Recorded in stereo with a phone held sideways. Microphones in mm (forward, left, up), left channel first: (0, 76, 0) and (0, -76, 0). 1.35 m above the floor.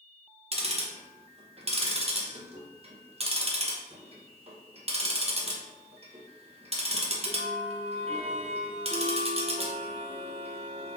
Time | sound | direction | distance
0.5 | ticking | 40° right (ahead or behind) | 0.5 m